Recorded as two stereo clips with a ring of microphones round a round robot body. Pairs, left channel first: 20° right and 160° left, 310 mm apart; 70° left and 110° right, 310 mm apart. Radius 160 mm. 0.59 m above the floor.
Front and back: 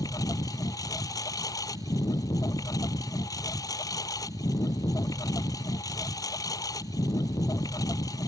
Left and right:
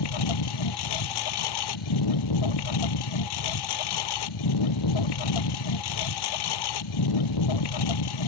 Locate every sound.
0.0 s a lawn mower: 55° left